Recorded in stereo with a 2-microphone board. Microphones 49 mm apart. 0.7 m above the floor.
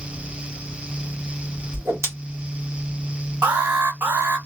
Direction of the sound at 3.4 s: 40° right (ahead or behind).